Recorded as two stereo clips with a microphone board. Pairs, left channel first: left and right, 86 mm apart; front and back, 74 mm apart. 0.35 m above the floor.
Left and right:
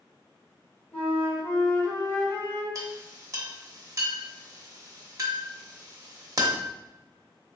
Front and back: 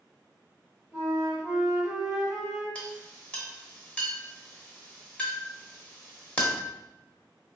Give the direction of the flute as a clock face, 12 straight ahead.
8 o'clock.